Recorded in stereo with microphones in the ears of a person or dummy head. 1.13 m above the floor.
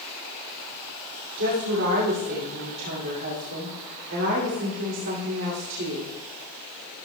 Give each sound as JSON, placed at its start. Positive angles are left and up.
{"t": 1.4, "sound": "a woman speaking", "side_deg": -65, "distance_m": 2.5}